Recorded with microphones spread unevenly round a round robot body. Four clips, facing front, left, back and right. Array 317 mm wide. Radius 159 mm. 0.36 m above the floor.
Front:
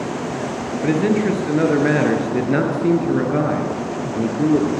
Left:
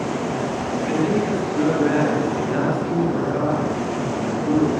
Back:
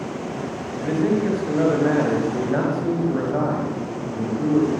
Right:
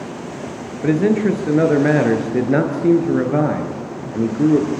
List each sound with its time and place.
0.8 s a man speaking: 65° right, 6.5 m